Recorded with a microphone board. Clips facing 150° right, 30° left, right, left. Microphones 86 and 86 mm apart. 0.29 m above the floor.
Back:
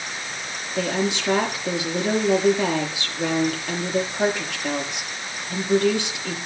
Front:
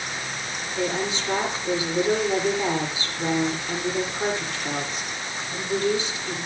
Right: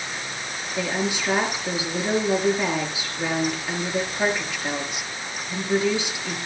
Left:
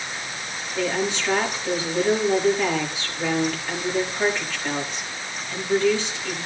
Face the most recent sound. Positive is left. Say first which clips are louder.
# back 3 dB, left 2 dB
turn(degrees=-165)